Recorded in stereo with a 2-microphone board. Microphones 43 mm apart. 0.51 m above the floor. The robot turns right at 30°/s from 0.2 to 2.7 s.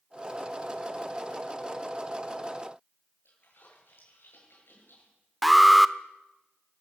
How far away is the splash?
About 10 m.